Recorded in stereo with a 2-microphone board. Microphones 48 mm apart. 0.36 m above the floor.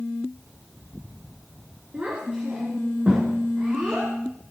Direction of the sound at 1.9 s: 30° right (ahead or behind).